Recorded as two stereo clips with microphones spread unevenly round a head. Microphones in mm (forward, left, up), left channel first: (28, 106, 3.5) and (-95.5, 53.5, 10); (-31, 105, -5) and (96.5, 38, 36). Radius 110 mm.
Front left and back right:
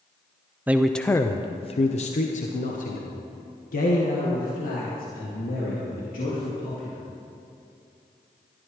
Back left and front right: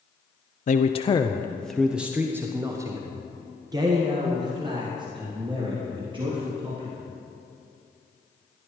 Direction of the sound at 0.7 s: 140° left.